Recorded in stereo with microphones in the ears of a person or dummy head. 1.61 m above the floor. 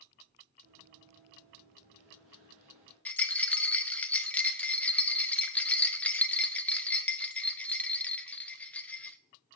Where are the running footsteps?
45° right (ahead or behind), 2 m; by 3.0 s 40° right (ahead or behind), 2.5 m.